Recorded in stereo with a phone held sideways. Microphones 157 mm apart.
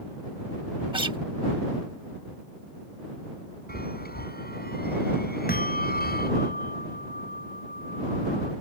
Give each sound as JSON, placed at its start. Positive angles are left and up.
{"t": 0.9, "sound": "a guitar", "side_deg": -30}
{"t": 3.7, "sound": "a chime", "side_deg": 80}
{"t": 5.5, "sound": "a bell", "side_deg": 70}